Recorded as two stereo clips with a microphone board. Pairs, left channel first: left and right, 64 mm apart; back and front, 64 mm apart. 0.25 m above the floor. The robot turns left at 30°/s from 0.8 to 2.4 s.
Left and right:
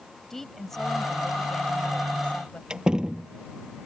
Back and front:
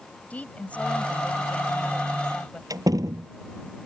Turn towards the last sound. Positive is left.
turn(degrees=-15)